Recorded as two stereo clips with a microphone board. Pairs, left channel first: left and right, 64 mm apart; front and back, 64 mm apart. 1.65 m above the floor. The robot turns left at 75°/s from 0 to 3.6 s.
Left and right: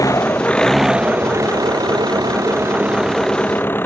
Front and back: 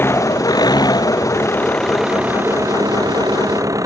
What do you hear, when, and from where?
0.0 s an engine running: 60° left; by 3.9 s 150° left